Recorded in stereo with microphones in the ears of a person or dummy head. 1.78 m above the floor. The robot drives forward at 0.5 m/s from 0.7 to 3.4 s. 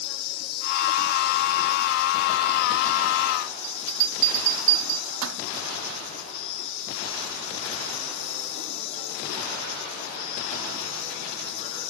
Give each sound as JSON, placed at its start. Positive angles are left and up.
{"t": 0.0, "sound": "an insect", "side_deg": 70, "distance_m": 4.5}
{"t": 3.6, "sound": "a bell", "side_deg": -65, "distance_m": 0.8}